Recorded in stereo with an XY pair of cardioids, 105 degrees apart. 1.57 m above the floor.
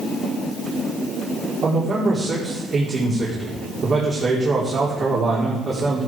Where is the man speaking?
50° right, 4 m.